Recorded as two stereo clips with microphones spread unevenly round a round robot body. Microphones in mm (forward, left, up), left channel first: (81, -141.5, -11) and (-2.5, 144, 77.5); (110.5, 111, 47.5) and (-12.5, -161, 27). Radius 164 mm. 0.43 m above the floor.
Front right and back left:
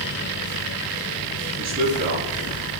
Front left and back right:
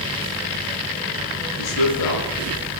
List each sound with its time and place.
1.6 s a man speaking: 55° left, 6.5 m